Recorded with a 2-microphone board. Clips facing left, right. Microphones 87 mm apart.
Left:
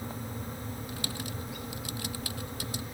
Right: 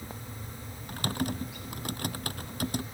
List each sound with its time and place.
0.9 s typing on a keyboard: 50° right (ahead or behind)